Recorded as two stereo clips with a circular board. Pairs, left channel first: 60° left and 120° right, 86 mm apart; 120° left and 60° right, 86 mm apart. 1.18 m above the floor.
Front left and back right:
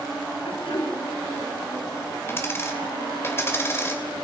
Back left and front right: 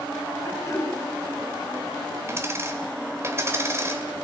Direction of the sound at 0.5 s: 65° left.